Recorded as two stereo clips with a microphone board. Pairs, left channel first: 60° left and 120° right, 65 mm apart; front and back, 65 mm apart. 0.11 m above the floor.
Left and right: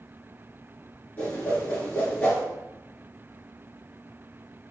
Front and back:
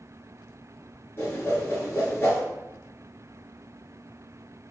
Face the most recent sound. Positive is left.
turn(degrees=15)